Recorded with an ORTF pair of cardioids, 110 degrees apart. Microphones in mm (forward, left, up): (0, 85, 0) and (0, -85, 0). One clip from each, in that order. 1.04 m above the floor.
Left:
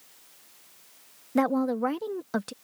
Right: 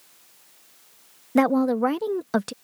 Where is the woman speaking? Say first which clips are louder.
Right 5 dB; 30° right.